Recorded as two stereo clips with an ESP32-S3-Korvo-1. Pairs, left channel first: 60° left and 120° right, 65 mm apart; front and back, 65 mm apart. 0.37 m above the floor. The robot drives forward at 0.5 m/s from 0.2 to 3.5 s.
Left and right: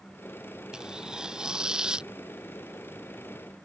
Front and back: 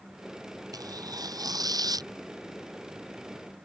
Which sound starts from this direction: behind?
Tearing paper, at 0.7 s.